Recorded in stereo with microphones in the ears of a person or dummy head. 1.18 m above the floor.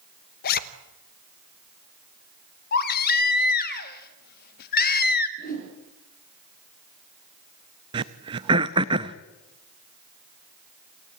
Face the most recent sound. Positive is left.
turn(degrees=-20)  # may be behind; listen again after turning